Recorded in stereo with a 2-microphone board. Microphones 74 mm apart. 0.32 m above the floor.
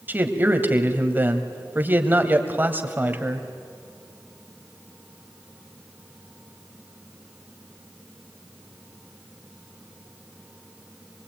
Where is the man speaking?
25° right (ahead or behind), 1.7 m.